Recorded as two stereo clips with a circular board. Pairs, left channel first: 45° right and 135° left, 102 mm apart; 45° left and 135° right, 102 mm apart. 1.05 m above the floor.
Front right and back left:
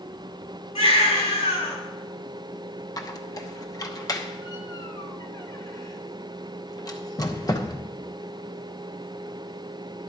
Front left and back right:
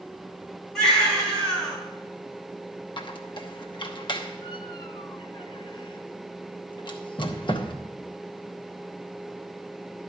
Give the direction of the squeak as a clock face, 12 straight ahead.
12 o'clock.